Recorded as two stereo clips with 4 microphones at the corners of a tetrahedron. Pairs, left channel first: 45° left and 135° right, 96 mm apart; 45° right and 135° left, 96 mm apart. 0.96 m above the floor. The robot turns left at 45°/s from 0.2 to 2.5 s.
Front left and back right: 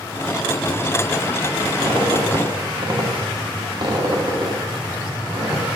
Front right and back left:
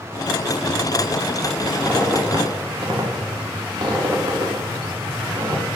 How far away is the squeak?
About 1.4 m.